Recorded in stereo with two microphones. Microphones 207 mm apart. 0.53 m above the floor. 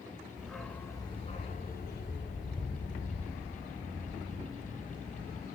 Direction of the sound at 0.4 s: 5° right (ahead or behind).